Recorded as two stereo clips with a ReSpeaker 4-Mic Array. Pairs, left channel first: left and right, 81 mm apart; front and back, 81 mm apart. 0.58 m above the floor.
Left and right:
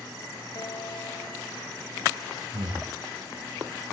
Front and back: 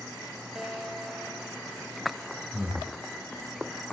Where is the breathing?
105° right, 3.5 m.